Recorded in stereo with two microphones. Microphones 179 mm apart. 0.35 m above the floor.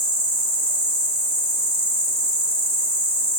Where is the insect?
35° right (ahead or behind), 1.8 m.